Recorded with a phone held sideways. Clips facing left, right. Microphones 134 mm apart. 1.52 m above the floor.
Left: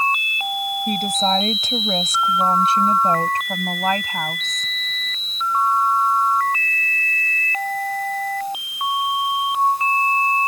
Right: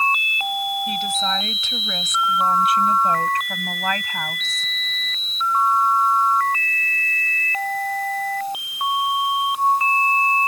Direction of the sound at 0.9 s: 45° left (ahead or behind).